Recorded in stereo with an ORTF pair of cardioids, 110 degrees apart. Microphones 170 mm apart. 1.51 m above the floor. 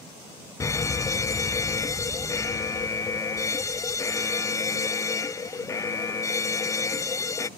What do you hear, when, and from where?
0.6 s an alarm: 20° left